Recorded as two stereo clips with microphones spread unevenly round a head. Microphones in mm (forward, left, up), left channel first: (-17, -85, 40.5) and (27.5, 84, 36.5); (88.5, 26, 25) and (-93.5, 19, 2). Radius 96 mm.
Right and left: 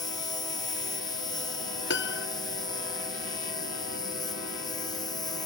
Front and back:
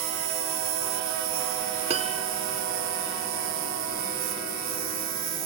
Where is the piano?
120° right.